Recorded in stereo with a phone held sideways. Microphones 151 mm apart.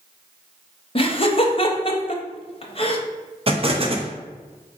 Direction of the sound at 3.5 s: 40° right (ahead or behind).